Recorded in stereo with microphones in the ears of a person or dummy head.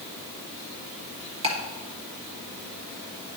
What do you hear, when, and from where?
1.4 s ticking: 30° right (ahead or behind), 1.6 m